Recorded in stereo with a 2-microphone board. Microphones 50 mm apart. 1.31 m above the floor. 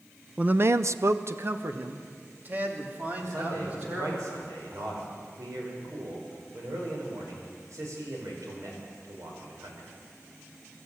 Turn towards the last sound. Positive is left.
turn(degrees=-85)